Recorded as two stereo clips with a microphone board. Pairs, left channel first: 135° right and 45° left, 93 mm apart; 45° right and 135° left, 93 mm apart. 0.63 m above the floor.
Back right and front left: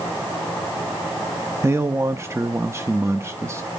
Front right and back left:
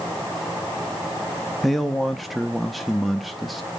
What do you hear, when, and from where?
1.6 s a man speaking: 45° left, 0.6 m